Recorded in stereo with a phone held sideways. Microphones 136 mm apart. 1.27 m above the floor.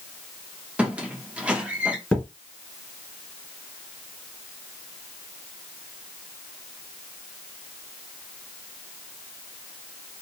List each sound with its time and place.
0.8 s a squeak: 10° right (ahead or behind), 0.6 m
2.1 s a thud: 5° left (ahead or behind), 1.3 m